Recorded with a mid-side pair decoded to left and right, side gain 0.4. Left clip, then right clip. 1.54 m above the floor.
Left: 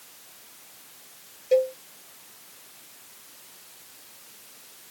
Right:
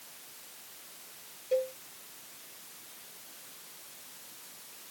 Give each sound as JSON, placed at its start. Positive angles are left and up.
{"t": 1.5, "sound": "a cowbell", "azimuth_deg": 55}